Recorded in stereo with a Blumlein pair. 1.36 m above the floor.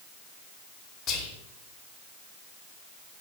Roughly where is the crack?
I don't hear a crack.